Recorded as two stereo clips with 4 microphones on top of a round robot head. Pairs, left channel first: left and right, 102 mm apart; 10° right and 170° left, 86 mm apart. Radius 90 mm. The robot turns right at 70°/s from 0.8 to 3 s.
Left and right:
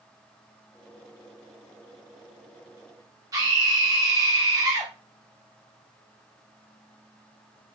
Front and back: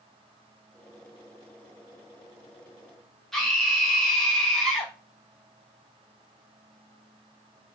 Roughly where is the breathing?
No breathing in this recording.